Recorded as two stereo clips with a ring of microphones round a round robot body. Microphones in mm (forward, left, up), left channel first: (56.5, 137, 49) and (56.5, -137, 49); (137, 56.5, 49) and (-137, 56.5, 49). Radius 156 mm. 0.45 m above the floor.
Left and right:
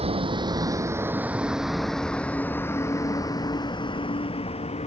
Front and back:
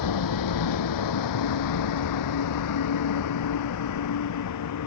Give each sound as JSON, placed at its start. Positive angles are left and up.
{"t": 0.0, "sound": "a vehicle", "azimuth_deg": -20}